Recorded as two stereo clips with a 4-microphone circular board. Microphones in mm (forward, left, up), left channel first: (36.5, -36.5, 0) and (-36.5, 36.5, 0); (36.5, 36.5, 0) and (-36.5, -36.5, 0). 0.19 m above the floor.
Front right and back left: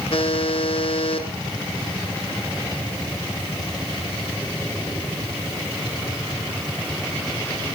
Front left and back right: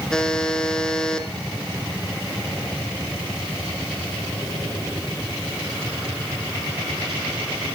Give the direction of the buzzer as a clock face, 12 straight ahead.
1 o'clock.